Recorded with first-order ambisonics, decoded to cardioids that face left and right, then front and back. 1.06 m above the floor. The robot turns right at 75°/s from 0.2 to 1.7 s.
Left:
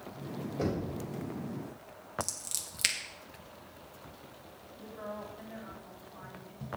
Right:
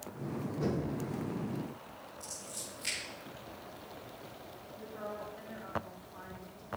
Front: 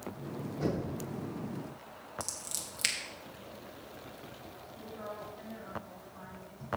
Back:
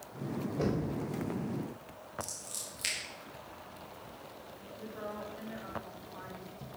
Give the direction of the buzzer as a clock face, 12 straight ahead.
I don't hear a buzzer.